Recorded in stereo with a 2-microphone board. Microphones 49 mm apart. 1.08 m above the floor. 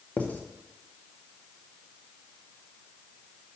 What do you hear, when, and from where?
0.2 s writing: 35° left (ahead or behind), 0.7 m